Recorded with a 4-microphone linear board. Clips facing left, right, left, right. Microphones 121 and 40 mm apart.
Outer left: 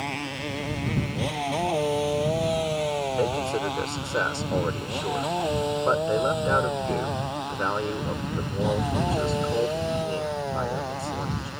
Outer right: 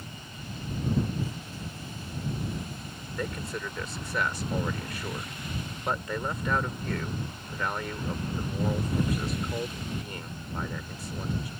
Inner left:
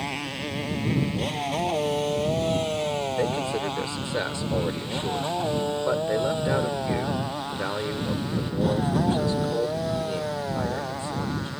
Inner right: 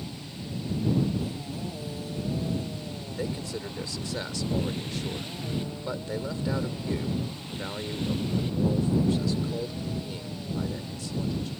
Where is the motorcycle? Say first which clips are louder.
Outer left 13 dB, inner left 9 dB; 80° left; by 11.6 s 85° left.